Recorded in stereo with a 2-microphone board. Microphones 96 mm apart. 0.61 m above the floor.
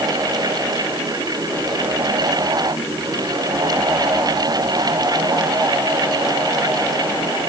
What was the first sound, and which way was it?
Only background noise.